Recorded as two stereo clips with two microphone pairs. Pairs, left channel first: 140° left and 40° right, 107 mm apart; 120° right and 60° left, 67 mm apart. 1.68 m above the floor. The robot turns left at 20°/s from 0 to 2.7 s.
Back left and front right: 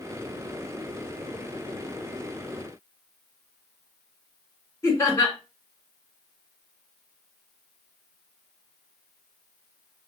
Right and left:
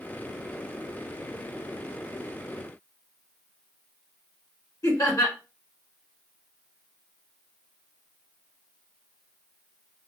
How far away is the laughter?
About 1.2 m.